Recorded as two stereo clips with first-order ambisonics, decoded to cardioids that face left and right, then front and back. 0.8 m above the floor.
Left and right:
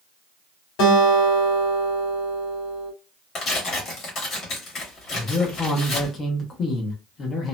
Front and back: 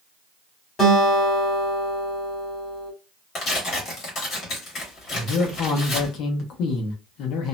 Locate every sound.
0.8 s a guitar: 65° left, 1.3 m
3.4 s tearing paper: 50° left, 1.5 m
5.1 s a man speaking: 25° left, 0.6 m